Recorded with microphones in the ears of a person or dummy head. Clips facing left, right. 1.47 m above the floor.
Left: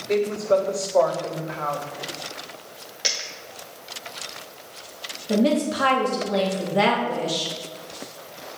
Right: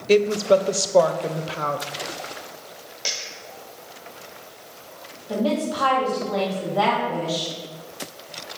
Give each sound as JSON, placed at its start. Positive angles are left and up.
{"t": 0.1, "sound": "a woman speaking", "side_deg": -40, "distance_m": 0.5}
{"t": 3.0, "sound": "a dropped coin", "side_deg": 15, "distance_m": 1.2}
{"t": 5.3, "sound": "a woman speaking", "side_deg": 30, "distance_m": 1.6}